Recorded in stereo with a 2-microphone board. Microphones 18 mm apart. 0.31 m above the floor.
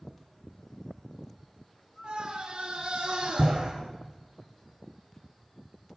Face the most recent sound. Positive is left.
turn(degrees=-75)  # may be behind; listen again after turning